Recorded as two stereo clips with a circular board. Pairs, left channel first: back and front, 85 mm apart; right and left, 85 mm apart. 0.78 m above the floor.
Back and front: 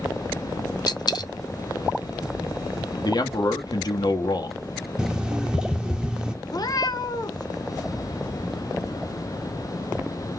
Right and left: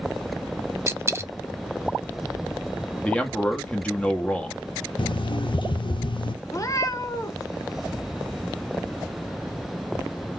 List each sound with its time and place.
0.9 s a dropped coin: 150° left, 0.6 m
3.0 s a man speaking: 165° right, 1.2 m
5.0 s an alarm clock: 80° right, 0.6 m
6.5 s a cat meowing: 140° right, 0.6 m